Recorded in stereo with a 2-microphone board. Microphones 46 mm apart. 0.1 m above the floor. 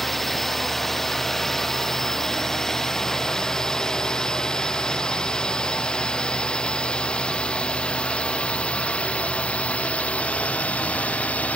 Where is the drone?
5° left (ahead or behind); by 11.6 s 30° left (ahead or behind).